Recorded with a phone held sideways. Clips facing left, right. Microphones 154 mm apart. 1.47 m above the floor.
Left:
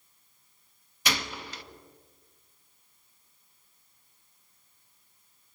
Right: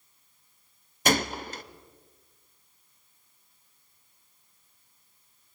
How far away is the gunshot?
About 0.7 m.